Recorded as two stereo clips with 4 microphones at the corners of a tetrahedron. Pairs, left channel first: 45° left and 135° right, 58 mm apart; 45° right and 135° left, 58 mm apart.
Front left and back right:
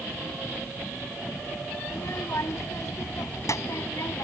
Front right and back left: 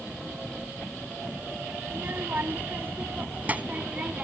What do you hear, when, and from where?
1.9 s a child speaking: 85° left; by 4.2 s 65° left